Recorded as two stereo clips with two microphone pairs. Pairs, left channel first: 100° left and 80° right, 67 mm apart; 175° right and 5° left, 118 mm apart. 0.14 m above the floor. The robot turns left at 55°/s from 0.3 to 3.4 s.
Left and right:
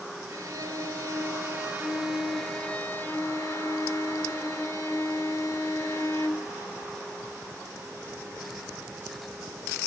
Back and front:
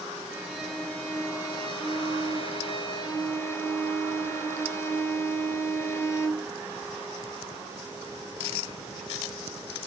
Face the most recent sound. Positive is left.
turn(degrees=125)